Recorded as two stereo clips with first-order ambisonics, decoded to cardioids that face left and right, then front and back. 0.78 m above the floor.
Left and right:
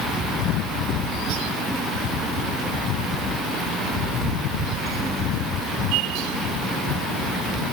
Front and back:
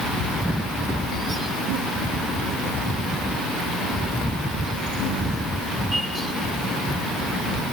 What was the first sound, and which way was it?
Only background noise.